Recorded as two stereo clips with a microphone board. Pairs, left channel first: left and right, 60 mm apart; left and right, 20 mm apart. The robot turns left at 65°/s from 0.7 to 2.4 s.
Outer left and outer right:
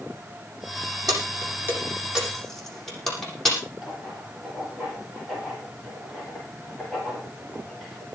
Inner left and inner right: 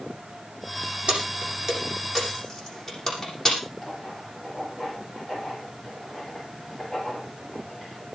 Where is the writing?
5° left (ahead or behind), 10 m.